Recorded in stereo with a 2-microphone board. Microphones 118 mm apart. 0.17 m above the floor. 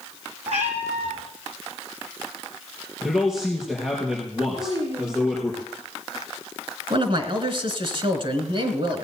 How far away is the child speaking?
About 7.5 m.